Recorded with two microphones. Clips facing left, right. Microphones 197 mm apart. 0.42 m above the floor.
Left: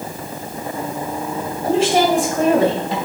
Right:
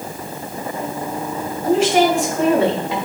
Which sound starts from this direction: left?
A woman speaking, at 1.6 s.